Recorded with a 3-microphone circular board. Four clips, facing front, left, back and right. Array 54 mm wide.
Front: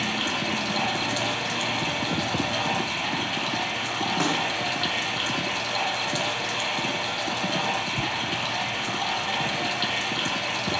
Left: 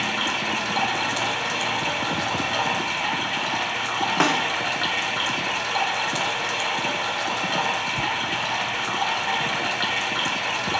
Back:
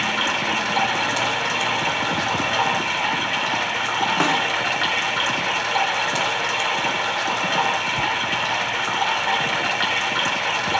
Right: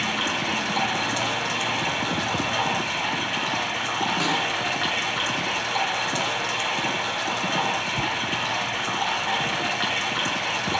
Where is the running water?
Straight behind, 1.3 m.